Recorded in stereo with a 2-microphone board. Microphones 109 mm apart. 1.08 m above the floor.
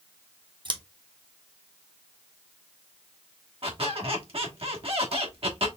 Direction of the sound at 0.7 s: 45° right (ahead or behind).